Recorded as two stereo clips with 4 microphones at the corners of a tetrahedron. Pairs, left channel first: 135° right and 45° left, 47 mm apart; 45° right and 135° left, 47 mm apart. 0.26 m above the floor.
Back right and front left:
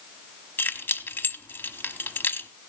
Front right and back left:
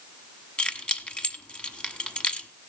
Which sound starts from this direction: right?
Keys jangling, at 0.6 s.